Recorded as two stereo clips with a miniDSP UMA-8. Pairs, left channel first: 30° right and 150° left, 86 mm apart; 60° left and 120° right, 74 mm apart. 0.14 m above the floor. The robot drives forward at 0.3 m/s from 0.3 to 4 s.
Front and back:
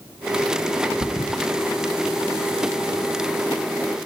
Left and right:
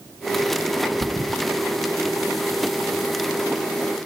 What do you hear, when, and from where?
1.0 s a thud: 80° right, 0.7 m; by 1.4 s 90° right, 0.7 m